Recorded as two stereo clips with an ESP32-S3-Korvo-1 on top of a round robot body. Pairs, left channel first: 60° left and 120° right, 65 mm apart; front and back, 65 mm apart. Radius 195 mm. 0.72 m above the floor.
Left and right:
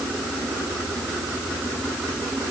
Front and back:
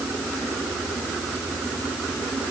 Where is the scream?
No scream in this recording.